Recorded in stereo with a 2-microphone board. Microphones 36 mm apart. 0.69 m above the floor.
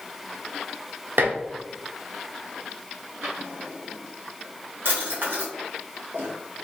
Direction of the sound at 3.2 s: 80° right.